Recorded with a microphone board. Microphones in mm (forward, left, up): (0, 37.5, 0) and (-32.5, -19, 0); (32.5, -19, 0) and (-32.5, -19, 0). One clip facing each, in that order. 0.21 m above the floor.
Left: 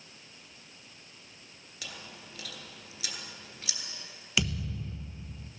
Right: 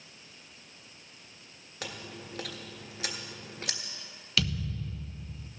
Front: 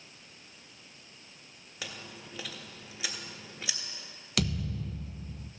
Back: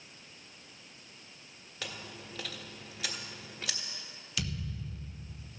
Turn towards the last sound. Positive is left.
turn(degrees=-10)